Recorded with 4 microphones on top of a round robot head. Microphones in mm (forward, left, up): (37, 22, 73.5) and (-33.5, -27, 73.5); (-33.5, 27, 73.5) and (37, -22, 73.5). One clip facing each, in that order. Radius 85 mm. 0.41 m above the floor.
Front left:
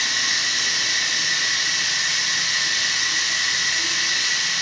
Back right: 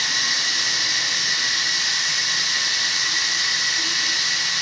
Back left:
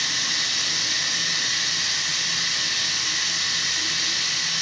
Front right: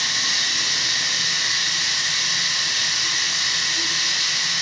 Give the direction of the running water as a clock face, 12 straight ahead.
2 o'clock.